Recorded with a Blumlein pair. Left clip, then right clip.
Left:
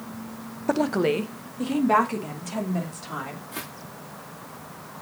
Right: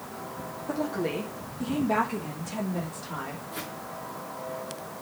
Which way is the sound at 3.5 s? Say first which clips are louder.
Even; 30° left.